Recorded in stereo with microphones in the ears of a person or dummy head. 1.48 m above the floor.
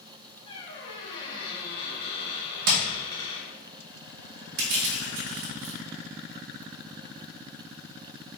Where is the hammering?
50° right (ahead or behind), 1.2 m.